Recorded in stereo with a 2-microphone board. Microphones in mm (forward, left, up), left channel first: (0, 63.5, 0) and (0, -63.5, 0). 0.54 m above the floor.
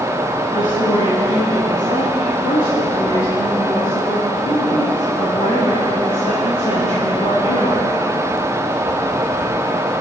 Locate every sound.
0.5 s a woman speaking: 80° left, 6 m; by 7.9 s 75° left (ahead or behind), 15.5 m